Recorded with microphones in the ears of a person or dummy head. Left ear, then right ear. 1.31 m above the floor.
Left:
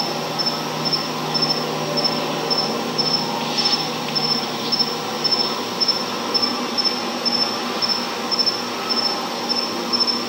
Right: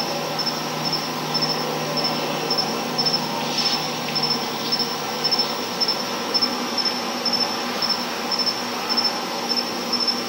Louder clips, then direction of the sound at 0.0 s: Left 2 dB; 10° right (ahead or behind).